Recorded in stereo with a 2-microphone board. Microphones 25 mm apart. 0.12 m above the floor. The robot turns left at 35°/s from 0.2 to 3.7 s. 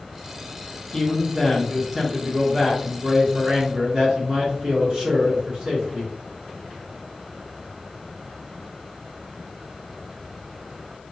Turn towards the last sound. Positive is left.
turn(degrees=-65)